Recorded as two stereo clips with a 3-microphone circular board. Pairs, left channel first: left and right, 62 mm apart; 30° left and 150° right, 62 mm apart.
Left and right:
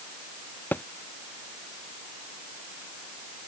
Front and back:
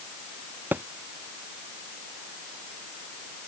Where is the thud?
150° left.